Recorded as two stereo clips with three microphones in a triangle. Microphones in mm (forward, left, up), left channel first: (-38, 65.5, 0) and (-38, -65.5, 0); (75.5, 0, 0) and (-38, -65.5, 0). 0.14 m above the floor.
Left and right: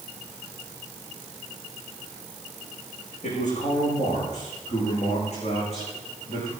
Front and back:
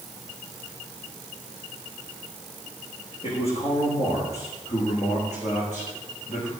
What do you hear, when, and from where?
3.2 s a man speaking: 70° left, 8.5 m; by 6.5 s 50° left, 10 m